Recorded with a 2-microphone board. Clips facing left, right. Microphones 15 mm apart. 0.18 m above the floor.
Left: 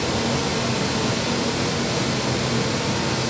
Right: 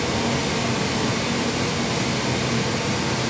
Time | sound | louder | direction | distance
0.0 | running water | even | 20° left (ahead or behind) | 1.1 m